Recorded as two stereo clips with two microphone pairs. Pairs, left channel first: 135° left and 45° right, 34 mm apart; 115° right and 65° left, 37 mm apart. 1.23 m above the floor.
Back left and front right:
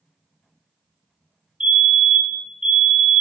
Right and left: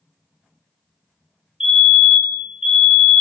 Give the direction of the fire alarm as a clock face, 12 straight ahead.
12 o'clock.